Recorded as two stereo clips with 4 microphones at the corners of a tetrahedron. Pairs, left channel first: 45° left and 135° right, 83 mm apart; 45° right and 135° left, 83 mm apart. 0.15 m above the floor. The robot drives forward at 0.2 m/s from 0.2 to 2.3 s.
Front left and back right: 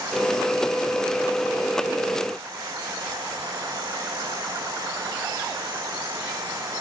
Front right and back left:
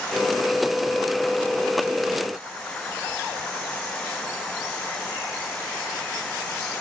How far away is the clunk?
I don't hear a clunk.